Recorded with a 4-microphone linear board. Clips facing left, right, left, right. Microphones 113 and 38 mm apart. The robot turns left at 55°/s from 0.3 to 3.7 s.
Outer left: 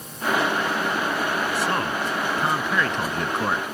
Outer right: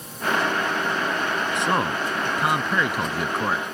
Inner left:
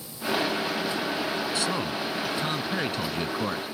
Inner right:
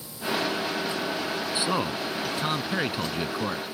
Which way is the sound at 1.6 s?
20° right (ahead or behind).